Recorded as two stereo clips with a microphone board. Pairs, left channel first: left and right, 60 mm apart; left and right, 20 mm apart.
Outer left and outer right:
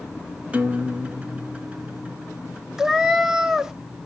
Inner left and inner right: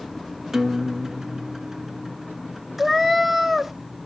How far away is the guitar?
About 0.9 m.